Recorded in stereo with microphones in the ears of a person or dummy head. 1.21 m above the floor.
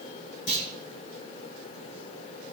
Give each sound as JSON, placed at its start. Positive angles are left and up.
{"t": 0.5, "sound": "a clunk", "side_deg": 75, "distance_m": 4.0}